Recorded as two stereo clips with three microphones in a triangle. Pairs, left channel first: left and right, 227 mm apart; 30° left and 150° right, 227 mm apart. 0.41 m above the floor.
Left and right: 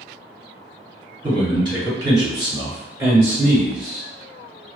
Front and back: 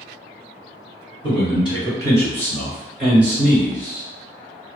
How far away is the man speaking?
About 1.5 m.